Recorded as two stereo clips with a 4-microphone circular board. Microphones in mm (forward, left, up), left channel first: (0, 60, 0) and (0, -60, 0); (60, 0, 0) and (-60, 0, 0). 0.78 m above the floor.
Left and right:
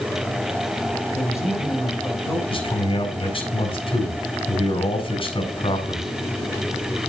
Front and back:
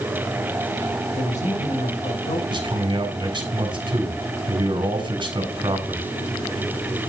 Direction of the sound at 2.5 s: 130° left.